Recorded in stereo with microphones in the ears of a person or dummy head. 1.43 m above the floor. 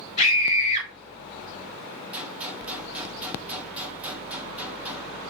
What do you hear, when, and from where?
0.2 s a scream: 35° left (ahead or behind), 2.5 m
2.1 s a gunshot: 10° right (ahead or behind), 0.7 m